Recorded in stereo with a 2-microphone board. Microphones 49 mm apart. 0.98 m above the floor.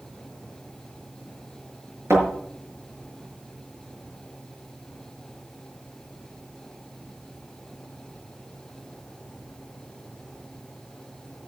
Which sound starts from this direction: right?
A thud, at 2.1 s.